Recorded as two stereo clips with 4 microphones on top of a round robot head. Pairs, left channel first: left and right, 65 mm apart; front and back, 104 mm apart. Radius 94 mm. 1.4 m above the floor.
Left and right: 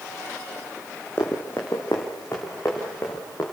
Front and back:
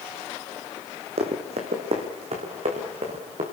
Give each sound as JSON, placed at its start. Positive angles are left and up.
{"t": 1.2, "sound": "running footsteps", "azimuth_deg": 160, "distance_m": 3.5}